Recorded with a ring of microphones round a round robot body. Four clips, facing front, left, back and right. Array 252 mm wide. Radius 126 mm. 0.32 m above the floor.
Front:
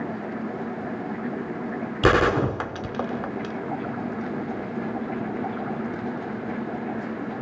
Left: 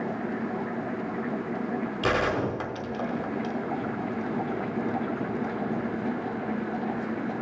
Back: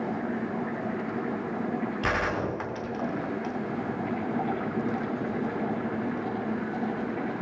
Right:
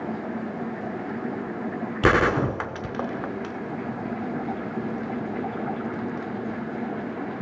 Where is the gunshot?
45° right, 0.6 m.